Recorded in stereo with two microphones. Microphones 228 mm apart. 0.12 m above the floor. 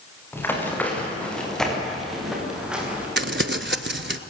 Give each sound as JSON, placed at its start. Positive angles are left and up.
{"t": 0.3, "sound": "running footsteps", "side_deg": 10, "distance_m": 6.5}
{"t": 3.2, "sound": "crumpling", "side_deg": -50, "distance_m": 0.8}